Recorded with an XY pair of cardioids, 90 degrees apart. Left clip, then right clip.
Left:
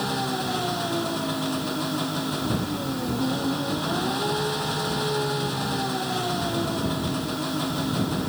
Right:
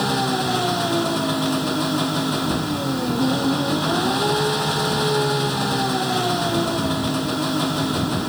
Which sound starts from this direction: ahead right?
An engine running, at 0.0 s.